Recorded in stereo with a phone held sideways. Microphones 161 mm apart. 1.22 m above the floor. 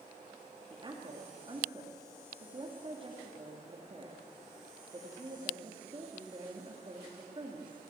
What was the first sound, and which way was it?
A woman speaking, 30° right (ahead or behind).